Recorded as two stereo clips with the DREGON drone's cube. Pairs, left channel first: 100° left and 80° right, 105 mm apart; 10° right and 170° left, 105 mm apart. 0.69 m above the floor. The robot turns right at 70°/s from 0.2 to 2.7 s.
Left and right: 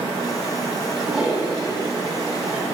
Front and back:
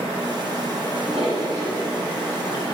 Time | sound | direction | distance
0.9 | a toilet flushing | straight behind | 3 m